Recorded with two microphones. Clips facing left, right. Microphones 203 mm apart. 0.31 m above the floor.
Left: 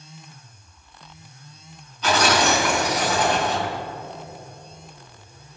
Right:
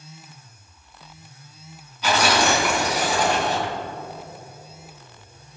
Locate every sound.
2.0 s tearing paper: 10° right (ahead or behind), 3.5 m